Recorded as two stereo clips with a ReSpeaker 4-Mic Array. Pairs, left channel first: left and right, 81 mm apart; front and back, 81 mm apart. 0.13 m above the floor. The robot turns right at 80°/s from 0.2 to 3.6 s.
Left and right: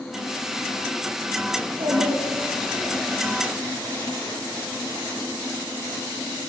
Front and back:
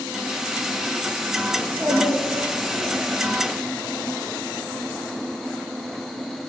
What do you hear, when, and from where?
1.6 s a child speaking: 115° right, 5 m; by 3.0 s straight ahead, 5 m